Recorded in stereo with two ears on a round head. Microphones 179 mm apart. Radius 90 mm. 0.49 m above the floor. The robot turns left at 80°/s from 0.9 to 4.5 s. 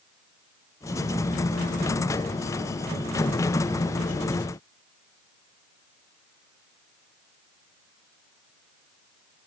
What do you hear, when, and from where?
Only background noise.